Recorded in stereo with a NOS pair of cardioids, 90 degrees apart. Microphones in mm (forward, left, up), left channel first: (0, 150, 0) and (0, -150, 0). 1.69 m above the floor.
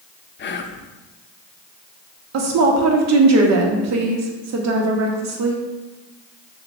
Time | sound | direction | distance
0.4 | whispering | 35° left | 0.6 m
2.3 | a woman speaking | 65° right | 0.9 m